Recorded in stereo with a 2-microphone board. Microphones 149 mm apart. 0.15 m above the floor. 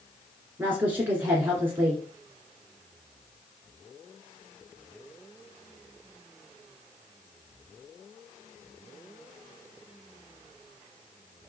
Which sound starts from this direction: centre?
A woman speaking, at 0.6 s.